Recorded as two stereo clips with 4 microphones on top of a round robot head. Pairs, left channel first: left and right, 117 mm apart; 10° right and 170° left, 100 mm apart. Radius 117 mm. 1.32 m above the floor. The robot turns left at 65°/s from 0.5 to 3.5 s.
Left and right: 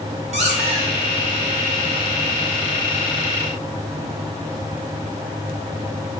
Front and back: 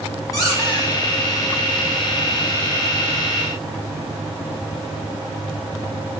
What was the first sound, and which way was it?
A squeak, 75° right.